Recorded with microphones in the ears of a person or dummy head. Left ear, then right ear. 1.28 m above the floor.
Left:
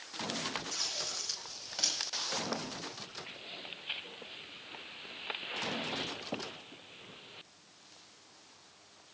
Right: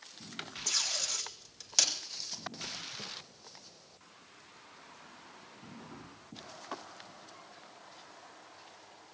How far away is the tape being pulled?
About 5.5 m.